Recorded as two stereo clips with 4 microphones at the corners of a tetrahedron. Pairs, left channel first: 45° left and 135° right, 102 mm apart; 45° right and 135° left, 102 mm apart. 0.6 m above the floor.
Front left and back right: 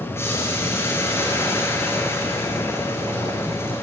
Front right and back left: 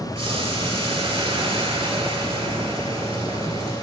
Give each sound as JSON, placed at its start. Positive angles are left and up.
{"t": 0.1, "sound": "boiling", "azimuth_deg": 110, "distance_m": 6.0}